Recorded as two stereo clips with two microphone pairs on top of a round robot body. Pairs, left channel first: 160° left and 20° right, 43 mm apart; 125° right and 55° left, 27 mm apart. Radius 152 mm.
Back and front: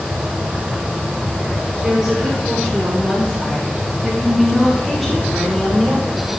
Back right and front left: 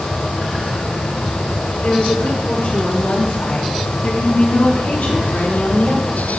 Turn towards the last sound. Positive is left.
turn(degrees=-115)